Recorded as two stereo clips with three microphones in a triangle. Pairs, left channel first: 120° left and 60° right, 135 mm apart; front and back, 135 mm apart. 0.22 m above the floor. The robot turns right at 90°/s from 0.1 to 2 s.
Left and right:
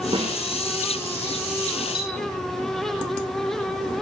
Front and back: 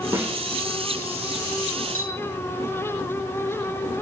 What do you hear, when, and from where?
0.1 s a snare drum: 110° right, 5 m; by 0.4 s 90° right, 5 m
1.9 s a clink: 175° left, 7 m; by 2.1 s straight behind, 7 m